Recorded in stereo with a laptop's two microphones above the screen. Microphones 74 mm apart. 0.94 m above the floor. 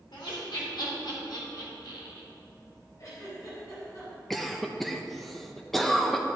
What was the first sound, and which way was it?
Laughter, 80° left.